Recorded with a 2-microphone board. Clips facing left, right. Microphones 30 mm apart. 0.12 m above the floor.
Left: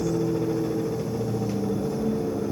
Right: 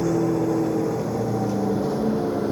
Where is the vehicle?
80° right; by 2.5 s 60° right (ahead or behind).